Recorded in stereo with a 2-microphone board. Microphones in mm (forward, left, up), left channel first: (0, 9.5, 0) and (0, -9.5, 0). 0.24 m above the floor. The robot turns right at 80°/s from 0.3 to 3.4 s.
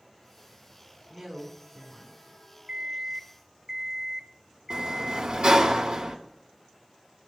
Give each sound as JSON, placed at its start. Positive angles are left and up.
{"t": 1.1, "sound": "a woman speaking", "azimuth_deg": -45, "distance_m": 3.0}
{"t": 2.7, "sound": "an alarm clock", "azimuth_deg": -90, "distance_m": 0.8}
{"t": 4.7, "sound": "a sliding door", "side_deg": -55, "distance_m": 1.1}